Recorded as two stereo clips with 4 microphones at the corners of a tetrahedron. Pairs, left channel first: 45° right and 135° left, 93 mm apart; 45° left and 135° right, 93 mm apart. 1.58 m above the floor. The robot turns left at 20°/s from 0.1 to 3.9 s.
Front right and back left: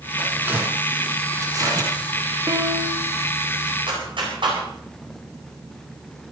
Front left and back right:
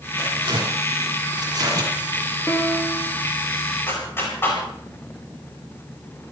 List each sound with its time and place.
0.2 s tearing paper: 150° right, 5.5 m; by 1.9 s 175° left, 5.5 m
2.5 s a piano: 105° left, 1.8 m; by 3.1 s 90° left, 1.8 m
3.9 s a clap: 110° left, 8.5 m